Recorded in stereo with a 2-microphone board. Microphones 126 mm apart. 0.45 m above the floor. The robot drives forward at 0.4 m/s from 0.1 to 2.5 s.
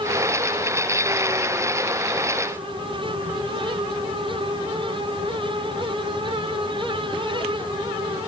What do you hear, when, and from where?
Only background noise.